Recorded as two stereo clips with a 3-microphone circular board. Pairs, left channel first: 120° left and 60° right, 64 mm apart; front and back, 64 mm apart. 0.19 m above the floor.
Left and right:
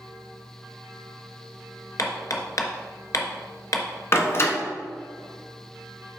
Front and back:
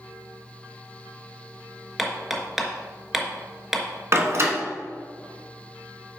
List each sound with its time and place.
2.0 s hammering: 90° left, 1.2 m
4.1 s a door slam: 150° left, 1.3 m